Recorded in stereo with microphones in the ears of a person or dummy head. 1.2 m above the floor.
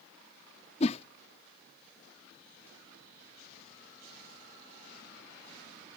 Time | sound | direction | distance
0.8 | a whoosh | 40° left (ahead or behind) | ?